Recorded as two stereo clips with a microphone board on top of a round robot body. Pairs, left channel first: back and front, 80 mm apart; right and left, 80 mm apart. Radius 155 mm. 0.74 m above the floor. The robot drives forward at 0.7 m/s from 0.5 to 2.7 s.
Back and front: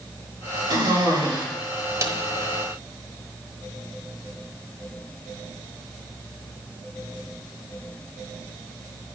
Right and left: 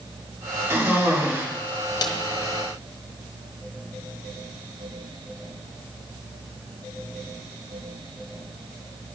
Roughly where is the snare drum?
Ahead right.